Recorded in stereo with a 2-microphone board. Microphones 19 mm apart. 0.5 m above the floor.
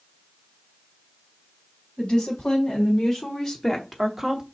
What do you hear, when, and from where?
2.0 s a woman speaking: 60° left (ahead or behind), 2.5 m; by 4.4 s 25° right (ahead or behind), 1.0 m